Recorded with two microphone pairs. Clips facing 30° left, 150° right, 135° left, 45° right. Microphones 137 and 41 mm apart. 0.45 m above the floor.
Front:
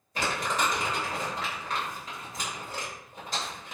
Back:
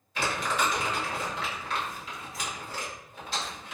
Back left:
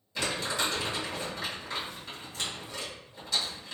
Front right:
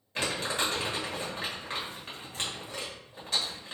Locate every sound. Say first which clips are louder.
0.1 s crumpling: even, even; 10° right, 1.4 m